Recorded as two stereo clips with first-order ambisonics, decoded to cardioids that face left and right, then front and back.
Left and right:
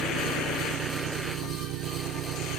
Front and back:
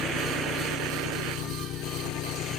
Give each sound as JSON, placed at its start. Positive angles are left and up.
{"t": 0.0, "sound": "an engine running", "azimuth_deg": -50}